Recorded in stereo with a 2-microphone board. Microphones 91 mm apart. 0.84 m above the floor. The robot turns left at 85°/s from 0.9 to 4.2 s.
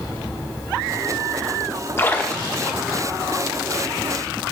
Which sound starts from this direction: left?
A splash, at 2.0 s.